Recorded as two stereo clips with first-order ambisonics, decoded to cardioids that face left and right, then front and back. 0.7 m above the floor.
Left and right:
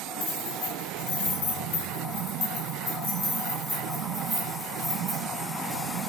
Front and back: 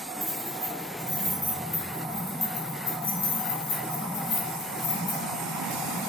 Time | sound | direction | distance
0.2 | keys jangling | 105° left | 1.7 m